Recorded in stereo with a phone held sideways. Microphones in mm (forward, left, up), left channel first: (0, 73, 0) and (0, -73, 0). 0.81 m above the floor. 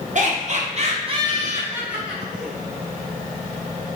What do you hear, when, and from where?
0.1 s laughter: 55° right (ahead or behind), 0.9 m; by 2.5 s 5° left (ahead or behind), 0.9 m